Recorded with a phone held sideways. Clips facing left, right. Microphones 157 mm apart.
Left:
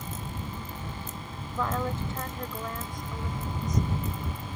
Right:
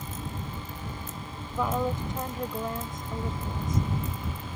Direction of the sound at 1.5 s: 15° right (ahead or behind).